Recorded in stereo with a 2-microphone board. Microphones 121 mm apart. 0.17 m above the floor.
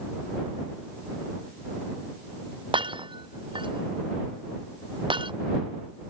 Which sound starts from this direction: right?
Breaking glass, at 2.7 s.